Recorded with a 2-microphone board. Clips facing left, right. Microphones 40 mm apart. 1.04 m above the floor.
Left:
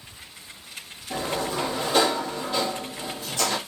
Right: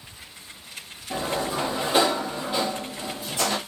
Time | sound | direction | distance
1.1 | a sliding door | 15° right (ahead or behind) | 1.0 m